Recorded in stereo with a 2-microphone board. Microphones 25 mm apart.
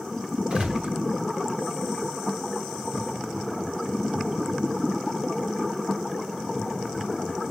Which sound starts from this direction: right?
A gunshot, at 0.5 s.